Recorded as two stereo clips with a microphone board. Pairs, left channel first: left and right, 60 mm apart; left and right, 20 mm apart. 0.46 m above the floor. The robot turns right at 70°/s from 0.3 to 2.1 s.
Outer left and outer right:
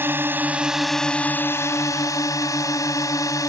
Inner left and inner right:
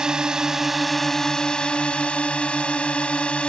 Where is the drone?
40° right; by 3.5 s 90° left.